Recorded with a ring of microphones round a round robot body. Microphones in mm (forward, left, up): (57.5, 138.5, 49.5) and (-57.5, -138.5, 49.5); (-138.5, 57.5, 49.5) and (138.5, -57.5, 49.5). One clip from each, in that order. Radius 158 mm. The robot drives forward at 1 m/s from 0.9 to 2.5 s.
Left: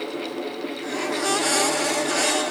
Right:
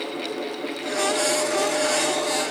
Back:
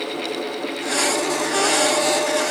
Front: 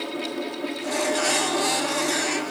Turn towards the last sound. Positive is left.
No sound to turn to.